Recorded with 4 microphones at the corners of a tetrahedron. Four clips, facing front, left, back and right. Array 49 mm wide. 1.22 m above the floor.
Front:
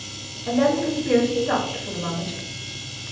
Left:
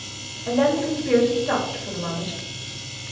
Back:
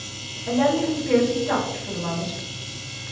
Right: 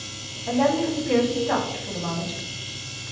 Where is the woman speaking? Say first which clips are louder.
Left 1 dB, even; 70° left, 1.8 m.